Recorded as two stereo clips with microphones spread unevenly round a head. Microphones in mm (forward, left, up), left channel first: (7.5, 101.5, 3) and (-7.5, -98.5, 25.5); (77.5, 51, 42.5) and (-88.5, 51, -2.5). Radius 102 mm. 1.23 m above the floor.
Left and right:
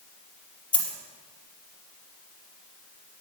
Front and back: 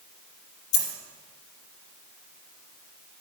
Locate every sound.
0.7 s a dropped coin: straight ahead, 5 m